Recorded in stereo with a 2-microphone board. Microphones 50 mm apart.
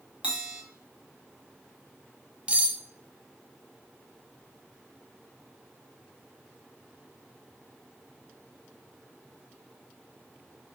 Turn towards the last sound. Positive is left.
turn(degrees=-25)  # may be behind; listen again after turning